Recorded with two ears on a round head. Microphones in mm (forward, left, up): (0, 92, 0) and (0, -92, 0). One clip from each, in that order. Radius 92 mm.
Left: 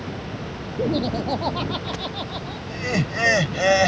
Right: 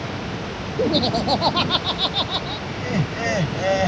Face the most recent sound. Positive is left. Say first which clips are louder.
# left 5 dB
turn(degrees=40)  # may be behind; listen again after turning